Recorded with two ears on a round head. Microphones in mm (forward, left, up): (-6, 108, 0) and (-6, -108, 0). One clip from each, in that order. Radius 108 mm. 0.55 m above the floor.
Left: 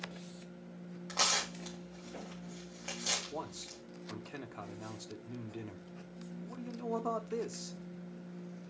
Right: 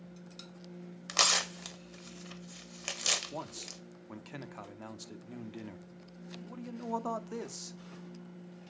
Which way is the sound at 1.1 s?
75° right (ahead or behind).